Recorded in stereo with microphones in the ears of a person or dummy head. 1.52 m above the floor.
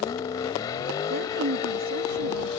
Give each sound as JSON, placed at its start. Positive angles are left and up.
{"t": 0.0, "sound": "a vehicle", "side_deg": 25}
{"t": 1.1, "sound": "a woman speaking", "side_deg": -65}